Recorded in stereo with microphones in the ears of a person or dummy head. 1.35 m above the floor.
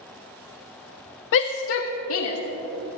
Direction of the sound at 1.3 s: 60° left (ahead or behind).